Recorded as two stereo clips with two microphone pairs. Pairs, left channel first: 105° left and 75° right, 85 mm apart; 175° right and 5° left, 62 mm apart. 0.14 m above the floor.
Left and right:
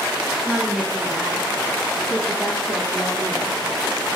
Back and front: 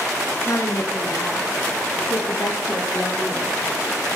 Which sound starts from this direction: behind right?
A woman speaking, at 0.5 s.